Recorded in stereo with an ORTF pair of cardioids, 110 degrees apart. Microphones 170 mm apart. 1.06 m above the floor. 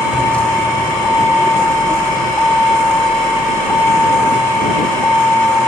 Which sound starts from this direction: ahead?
A vehicle, at 0.0 s.